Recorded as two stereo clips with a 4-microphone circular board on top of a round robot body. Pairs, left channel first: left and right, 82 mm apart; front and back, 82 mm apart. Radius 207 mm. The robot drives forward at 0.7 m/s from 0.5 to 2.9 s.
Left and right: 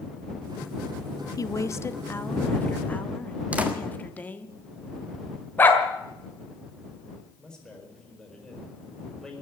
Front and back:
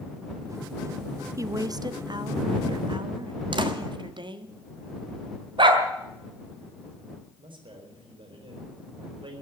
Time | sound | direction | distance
1.4 | a woman speaking | 135° left | 0.8 m
3.5 | a door slam | 165° right | 1.7 m
5.6 | a dog barking | 160° left | 1.7 m
7.4 | a man speaking | 170° left | 4 m